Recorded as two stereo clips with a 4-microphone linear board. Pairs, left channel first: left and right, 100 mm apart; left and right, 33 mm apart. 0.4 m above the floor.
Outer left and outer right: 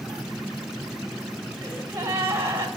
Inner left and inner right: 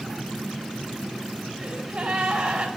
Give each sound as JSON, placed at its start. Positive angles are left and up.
{"t": 1.6, "sound": "a gasp", "side_deg": -25, "distance_m": 1.5}